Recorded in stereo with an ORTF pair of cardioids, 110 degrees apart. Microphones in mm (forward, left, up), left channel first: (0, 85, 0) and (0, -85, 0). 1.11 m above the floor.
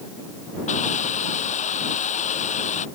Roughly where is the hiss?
Ahead left.